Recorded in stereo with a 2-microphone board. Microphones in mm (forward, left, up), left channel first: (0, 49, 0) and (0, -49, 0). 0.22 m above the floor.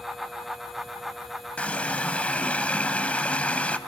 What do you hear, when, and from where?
1.6 s a running tap: 15° left (ahead or behind), 0.9 m